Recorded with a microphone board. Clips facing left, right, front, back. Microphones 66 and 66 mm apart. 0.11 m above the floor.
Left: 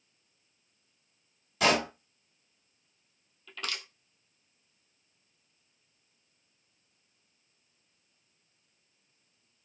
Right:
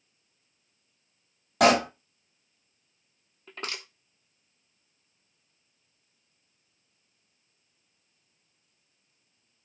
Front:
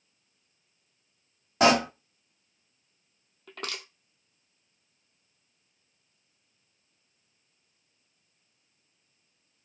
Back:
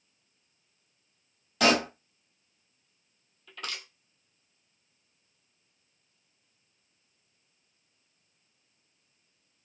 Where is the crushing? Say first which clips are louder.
Right 1 dB, front 2 dB; 35° right, 0.9 m.